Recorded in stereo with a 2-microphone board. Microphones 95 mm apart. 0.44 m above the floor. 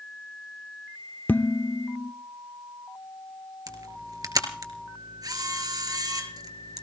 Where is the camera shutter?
45° right (ahead or behind), 3.5 m.